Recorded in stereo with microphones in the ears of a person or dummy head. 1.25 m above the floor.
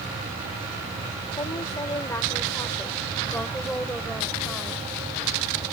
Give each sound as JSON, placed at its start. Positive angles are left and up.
{"t": 1.4, "sound": "a woman speaking", "side_deg": 25}